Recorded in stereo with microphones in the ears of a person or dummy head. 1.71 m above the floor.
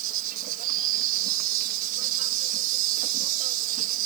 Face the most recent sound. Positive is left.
turn(degrees=-40)  # may be behind; listen again after turning